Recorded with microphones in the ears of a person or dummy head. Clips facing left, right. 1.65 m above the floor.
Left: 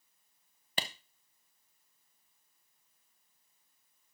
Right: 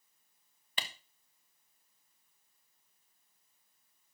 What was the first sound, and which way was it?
A clap, 35° left (ahead or behind).